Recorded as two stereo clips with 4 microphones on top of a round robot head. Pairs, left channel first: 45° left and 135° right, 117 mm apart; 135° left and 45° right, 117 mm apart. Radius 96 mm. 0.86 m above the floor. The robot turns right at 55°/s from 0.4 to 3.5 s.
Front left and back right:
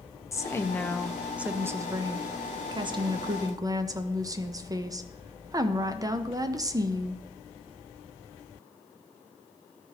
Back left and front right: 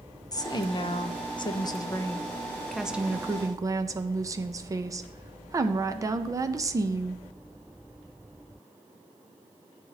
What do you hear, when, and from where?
0.3 s a woman speaking: 95° left, 0.6 m; by 7.2 s 95° right, 0.6 m